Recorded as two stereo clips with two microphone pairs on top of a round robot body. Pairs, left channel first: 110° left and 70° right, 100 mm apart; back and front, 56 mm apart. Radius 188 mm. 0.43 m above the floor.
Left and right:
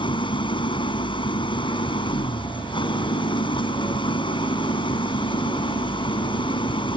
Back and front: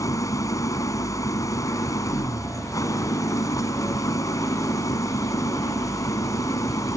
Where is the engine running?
155° left.